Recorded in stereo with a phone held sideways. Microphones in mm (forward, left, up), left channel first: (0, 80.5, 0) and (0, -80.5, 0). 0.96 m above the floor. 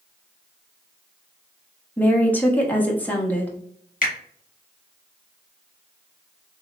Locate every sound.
2.0 s a woman speaking: 10° left (ahead or behind), 1.1 m
4.0 s a finger snap: 55° left (ahead or behind), 1.4 m